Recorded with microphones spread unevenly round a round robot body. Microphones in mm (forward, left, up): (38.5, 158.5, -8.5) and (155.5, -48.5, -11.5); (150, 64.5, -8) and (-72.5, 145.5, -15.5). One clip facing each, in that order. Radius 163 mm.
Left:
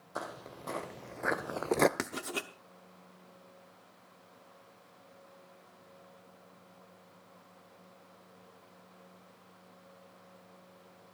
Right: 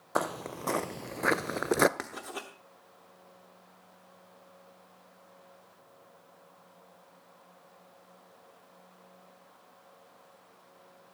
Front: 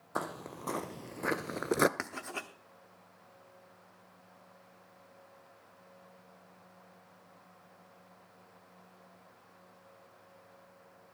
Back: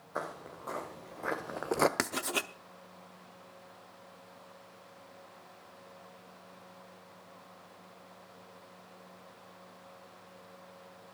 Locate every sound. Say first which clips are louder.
0.1 s footsteps: right 10 dB, front 2 dB; 55° right, 1.1 m; by 1.9 s 25° left, 0.5 m
2.0 s writing: left 3 dB, back 7 dB; 170° left, 0.7 m